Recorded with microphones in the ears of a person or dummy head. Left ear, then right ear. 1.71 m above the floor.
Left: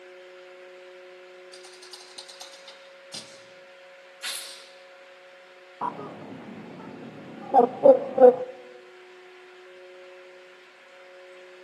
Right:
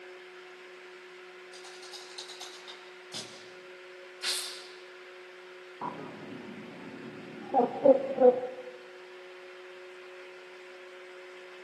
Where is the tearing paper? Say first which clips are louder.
Right 1 dB; 15° left (ahead or behind), 3 m.